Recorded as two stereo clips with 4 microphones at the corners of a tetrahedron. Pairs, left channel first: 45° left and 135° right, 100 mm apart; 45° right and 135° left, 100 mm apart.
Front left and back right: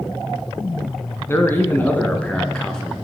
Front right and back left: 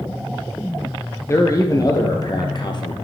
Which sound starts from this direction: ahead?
A man speaking, at 1.3 s.